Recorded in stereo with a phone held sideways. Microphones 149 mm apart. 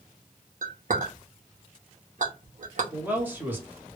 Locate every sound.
0.6 s a clink: 55° right (ahead or behind), 0.7 m
2.9 s a man speaking: 15° right (ahead or behind), 0.9 m